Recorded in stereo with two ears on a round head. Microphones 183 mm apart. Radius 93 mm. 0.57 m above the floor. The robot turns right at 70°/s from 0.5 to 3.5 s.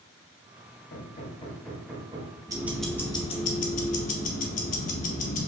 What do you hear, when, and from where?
0.9 s hammering: 115° left, 1.2 m; by 2.4 s 140° right, 1.2 m
2.5 s ticking: 20° right, 0.6 m; by 5.5 s 50° left, 0.6 m